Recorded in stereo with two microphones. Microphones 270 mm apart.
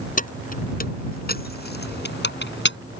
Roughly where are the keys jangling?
Left.